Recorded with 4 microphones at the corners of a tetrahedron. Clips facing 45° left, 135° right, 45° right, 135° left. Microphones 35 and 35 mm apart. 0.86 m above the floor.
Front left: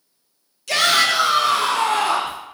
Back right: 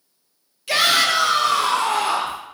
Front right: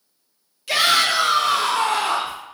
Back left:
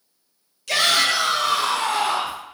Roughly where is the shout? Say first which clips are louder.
Even, front right 1 dB; right.